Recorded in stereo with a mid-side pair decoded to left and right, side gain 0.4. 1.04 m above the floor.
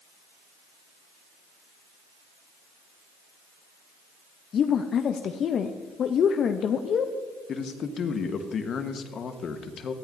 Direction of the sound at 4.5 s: 60° left.